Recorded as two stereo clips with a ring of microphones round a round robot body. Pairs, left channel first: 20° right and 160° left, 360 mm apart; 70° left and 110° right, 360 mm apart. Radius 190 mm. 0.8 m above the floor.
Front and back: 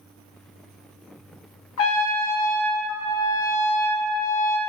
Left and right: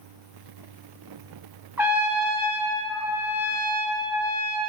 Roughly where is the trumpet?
Ahead right.